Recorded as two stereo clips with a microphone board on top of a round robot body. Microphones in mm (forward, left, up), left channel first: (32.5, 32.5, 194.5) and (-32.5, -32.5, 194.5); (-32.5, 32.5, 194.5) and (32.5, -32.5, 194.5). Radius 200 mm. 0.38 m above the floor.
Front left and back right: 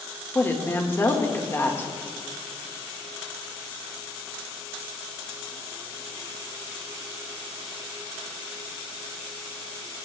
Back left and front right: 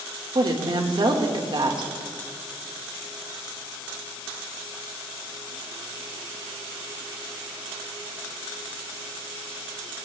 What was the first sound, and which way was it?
A woman speaking, 15° right.